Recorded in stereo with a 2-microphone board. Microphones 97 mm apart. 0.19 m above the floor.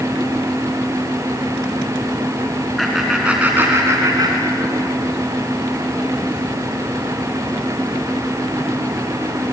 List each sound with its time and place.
2.8 s laughter: centre (ahead or behind), 2.5 m; by 4.8 s 55° right (ahead or behind), 3 m